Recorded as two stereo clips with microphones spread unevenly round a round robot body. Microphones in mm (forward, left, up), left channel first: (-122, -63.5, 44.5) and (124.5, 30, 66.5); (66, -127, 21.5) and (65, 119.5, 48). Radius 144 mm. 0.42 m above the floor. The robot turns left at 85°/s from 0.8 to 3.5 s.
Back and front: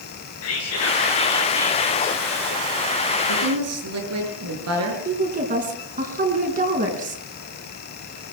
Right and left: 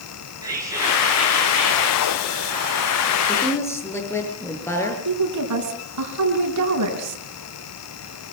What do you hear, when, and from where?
0.4 s whispering: 170° left, 7.5 m; by 2.2 s 50° left, 7.5 m
3.3 s a woman speaking: 5° left, 7.5 m; by 5.0 s 10° right, 7.5 m
5.0 s a woman speaking: 85° left, 5 m